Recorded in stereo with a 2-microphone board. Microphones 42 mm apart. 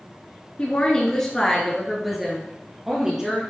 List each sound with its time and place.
0.6 s a woman speaking: 25° left (ahead or behind), 1.2 m; by 3.4 s 15° right (ahead or behind), 2.5 m